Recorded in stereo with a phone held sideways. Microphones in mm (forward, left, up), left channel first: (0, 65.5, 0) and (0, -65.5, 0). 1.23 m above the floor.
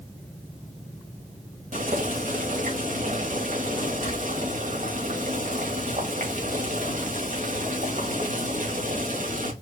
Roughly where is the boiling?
Right.